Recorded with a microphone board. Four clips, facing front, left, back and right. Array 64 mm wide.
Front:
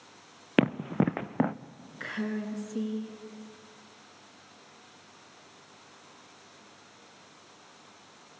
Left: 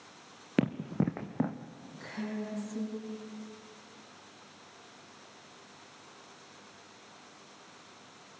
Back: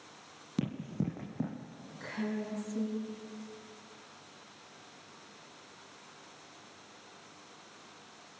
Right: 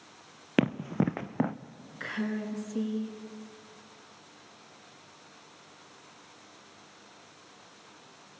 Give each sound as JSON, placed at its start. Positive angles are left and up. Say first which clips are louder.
{"t": 0.6, "sound": "running footsteps", "louder": "right 3 dB, front 10 dB", "azimuth_deg": -15, "distance_m": 0.7}
{"t": 2.0, "sound": "a woman speaking", "louder": "right 5 dB, front 3 dB", "azimuth_deg": -45, "distance_m": 3.0}